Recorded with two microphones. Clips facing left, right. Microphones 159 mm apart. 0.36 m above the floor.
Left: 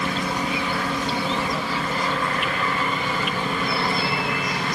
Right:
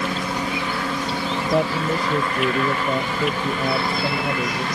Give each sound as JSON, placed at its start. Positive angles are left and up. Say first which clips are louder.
{"t": 1.5, "sound": "a man speaking", "louder": "right 6 dB", "side_deg": -65}